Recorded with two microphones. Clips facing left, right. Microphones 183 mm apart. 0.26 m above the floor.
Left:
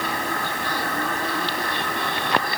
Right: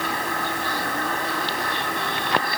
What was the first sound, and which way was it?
Only background noise.